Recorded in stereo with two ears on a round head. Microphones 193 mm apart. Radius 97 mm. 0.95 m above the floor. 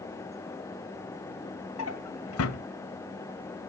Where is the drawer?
75° left (ahead or behind), 1.9 m.